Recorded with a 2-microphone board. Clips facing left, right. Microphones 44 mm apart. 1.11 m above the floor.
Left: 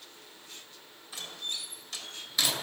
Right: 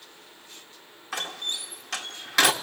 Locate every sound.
1.1 s a door slam: 80° right, 1.5 m